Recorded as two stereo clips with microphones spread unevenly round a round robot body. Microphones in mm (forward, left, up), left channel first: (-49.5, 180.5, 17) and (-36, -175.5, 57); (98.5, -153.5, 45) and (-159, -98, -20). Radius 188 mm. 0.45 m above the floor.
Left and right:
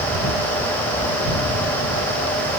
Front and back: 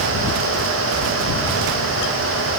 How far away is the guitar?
No guitar in this recording.